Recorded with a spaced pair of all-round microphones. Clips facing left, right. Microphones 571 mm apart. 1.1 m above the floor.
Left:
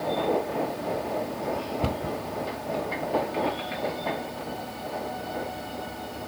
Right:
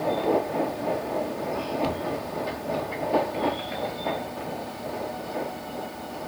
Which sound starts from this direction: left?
A cupboard door, at 1.8 s.